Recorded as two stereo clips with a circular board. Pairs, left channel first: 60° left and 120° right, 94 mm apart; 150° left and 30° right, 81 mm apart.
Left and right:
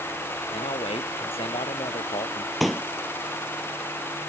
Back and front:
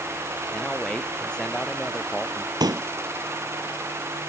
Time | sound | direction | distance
0.5 | a man speaking | 70° left | ?
2.6 | a pop | 30° right | ?